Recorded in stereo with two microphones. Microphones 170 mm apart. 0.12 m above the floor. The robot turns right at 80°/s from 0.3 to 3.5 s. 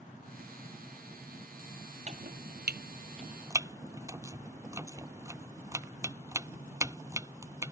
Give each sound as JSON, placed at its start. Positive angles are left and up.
{"t": 2.1, "sound": "chopping", "side_deg": -45}